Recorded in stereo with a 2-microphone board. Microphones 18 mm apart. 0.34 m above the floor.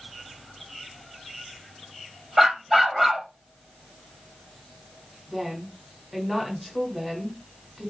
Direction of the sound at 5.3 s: Centre (ahead or behind).